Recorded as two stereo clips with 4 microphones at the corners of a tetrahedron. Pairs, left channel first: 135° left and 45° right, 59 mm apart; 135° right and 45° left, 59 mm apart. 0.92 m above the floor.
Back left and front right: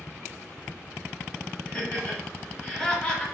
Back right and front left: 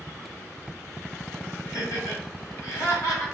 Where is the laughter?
155° right, 1.2 m.